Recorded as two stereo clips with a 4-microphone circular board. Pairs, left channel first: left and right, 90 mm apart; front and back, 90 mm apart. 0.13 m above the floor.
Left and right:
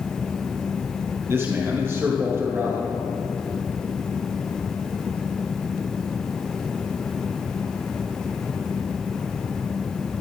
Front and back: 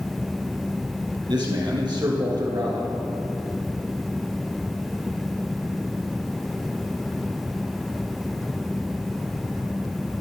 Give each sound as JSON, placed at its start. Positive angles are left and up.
{"t": 1.3, "sound": "a man speaking", "azimuth_deg": -150, "distance_m": 4.0}